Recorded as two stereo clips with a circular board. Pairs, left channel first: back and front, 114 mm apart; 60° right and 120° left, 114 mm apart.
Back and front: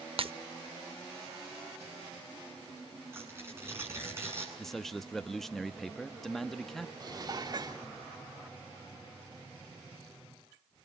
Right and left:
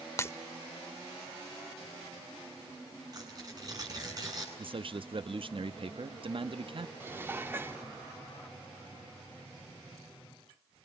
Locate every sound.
0.2 s breaking glass: straight ahead, 0.7 m
3.1 s tearing paper: 65° left, 8 m
4.6 s a man speaking: 90° left, 0.9 m
7.0 s dishes clattering: 50° left, 1.2 m